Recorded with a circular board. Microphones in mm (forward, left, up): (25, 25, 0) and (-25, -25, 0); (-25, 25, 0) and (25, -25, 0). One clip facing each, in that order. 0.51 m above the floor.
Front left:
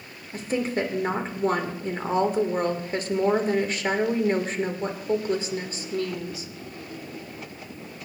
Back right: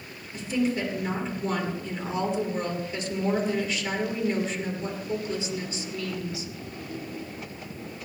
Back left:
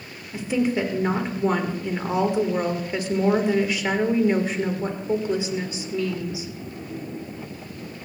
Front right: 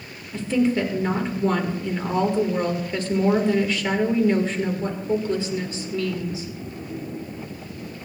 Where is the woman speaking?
65° left, 1.9 m.